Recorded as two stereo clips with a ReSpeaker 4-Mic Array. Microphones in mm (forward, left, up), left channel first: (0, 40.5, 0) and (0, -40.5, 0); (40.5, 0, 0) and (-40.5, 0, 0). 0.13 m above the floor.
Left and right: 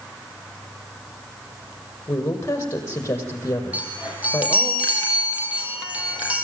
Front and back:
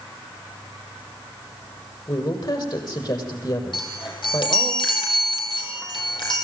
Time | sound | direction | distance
2.1 | a woman speaking | 30° left | 5.5 m
3.7 | a chime | 20° right | 4 m